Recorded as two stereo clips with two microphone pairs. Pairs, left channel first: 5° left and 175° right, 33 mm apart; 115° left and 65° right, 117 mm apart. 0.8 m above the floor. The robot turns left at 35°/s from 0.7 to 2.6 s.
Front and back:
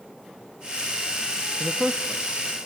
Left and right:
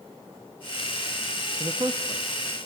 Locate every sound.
1.6 s a man speaking: 85° right, 0.6 m; by 2.2 s 110° right, 0.6 m